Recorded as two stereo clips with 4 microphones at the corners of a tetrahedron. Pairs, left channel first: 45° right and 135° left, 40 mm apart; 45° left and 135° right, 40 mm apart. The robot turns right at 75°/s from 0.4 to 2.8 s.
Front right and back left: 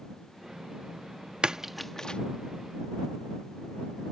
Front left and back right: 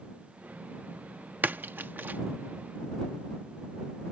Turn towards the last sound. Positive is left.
turn(degrees=-60)